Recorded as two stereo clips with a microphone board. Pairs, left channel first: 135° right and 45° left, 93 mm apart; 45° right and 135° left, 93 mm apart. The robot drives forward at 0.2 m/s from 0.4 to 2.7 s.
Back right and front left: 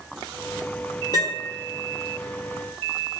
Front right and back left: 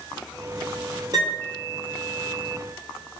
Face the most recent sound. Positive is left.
turn(degrees=180)